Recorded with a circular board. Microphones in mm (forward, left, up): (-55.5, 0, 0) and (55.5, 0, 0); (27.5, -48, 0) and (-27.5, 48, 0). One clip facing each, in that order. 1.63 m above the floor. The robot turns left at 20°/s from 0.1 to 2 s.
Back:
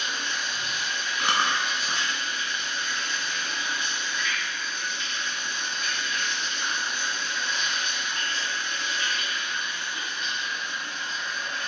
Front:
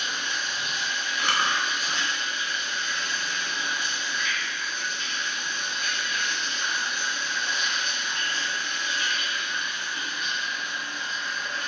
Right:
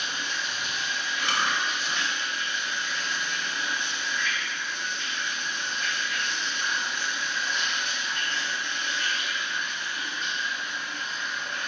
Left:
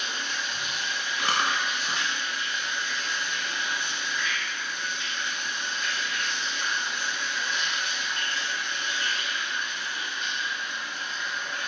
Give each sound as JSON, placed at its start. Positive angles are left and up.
{"t": 0.0, "sound": "running water", "azimuth_deg": 75, "distance_m": 1.6}
{"t": 1.2, "sound": "chewing", "azimuth_deg": 115, "distance_m": 0.6}